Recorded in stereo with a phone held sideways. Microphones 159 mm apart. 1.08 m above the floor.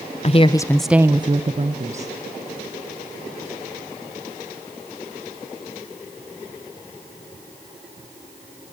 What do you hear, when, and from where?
0.2 s a woman speaking: 40° left (ahead or behind), 0.7 m; by 2.1 s 50° right (ahead or behind), 1.3 m